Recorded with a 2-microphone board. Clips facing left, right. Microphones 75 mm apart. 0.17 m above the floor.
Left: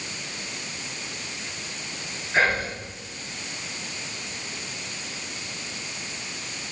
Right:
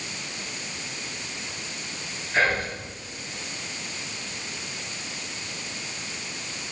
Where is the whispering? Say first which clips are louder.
Left 1 dB; 20° left (ahead or behind), 1.4 m.